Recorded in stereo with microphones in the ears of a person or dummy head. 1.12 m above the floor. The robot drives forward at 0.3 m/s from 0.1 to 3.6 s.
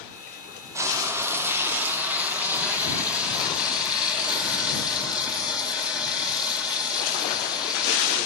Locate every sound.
0.8 s frying: 15° right (ahead or behind), 0.5 m; by 8.2 s 5° right (ahead or behind), 1.3 m